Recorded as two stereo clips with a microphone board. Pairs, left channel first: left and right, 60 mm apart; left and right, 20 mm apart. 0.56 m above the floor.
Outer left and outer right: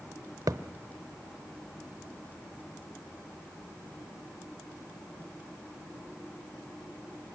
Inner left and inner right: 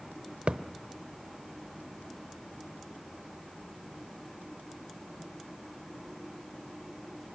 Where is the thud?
80° right, 1.0 m.